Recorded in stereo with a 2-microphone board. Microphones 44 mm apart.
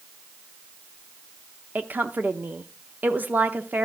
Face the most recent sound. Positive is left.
turn(degrees=-40)  # may be behind; listen again after turning